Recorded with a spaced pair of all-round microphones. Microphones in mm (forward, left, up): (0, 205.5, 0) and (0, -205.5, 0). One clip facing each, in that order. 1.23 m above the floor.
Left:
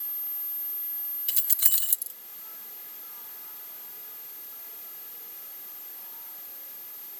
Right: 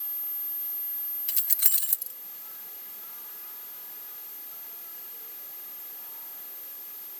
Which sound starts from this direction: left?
Keys jangling, at 1.3 s.